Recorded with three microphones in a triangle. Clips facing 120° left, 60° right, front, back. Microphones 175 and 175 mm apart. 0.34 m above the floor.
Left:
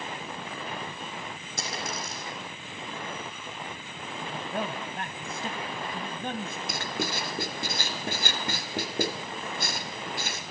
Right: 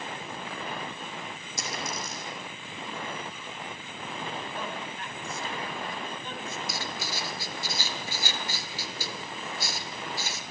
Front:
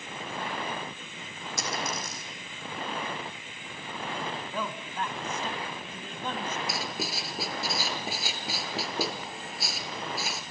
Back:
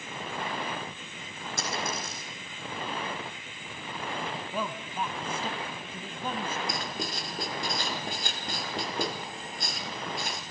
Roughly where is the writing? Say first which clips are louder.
Left 4 dB, even; left.